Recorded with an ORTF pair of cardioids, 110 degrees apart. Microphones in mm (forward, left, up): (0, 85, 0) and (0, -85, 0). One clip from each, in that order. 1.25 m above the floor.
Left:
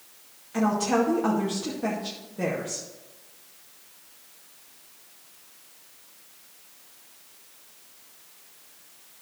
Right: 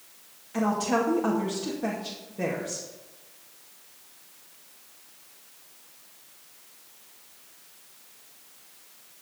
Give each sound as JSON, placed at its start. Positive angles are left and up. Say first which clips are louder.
{"t": 0.5, "sound": "a woman speaking", "louder": "left 2 dB", "azimuth_deg": 0, "distance_m": 2.0}